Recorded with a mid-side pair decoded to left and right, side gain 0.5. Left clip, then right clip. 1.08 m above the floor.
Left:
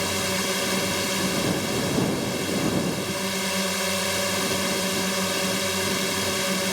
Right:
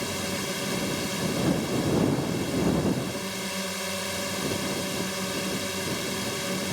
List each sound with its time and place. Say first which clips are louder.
0.0 s a drone: left 5 dB; 40° left